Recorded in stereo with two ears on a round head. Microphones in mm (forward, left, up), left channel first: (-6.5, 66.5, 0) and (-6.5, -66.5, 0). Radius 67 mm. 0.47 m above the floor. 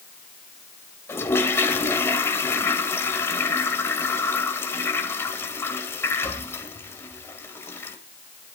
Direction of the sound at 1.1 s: 15° left (ahead or behind).